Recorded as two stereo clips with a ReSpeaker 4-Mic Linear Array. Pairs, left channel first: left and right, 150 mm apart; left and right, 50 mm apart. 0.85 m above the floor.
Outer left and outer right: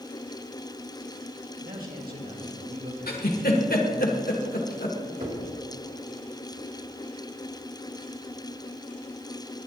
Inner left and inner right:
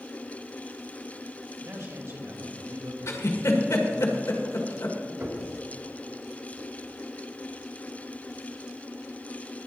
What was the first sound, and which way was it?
A man speaking, 80° right.